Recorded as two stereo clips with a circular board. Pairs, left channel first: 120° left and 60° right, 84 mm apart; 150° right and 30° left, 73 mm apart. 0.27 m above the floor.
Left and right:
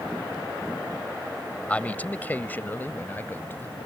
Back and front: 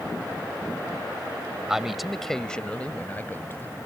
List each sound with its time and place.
1.7 s a man speaking: 95° left; by 3.8 s 175° left